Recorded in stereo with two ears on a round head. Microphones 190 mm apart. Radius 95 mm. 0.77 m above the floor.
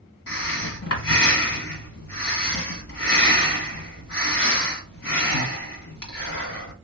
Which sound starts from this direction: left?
Breathing, at 0.3 s.